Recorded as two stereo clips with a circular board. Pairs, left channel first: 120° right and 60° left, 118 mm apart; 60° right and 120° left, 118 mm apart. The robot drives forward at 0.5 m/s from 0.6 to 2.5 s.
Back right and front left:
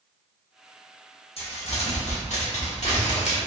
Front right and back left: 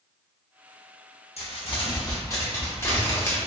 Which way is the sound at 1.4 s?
85° right.